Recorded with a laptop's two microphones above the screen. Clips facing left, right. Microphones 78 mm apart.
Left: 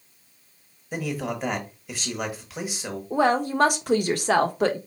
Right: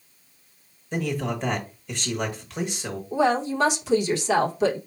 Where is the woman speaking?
50° left (ahead or behind), 0.8 m.